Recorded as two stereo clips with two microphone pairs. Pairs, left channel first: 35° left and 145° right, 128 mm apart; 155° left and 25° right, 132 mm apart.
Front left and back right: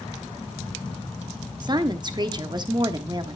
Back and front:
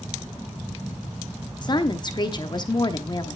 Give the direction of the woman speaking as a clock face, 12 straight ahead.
6 o'clock.